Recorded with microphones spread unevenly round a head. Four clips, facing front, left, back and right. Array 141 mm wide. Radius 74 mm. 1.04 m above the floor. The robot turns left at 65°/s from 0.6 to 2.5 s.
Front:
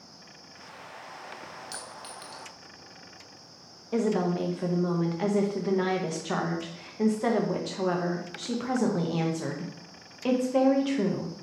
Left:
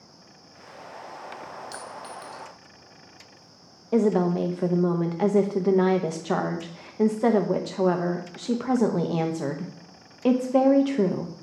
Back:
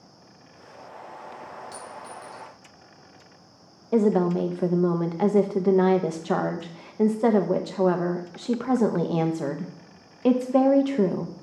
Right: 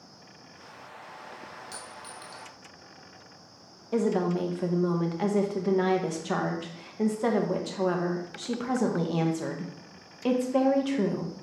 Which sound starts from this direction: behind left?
A woman speaking, at 3.9 s.